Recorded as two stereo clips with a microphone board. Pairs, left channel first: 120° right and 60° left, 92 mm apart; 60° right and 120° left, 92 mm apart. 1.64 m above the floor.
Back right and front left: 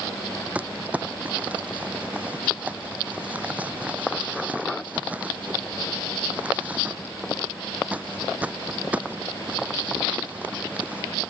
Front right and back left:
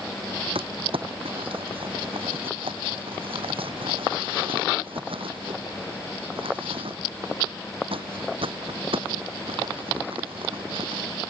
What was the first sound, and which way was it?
Crumpling, 135° left.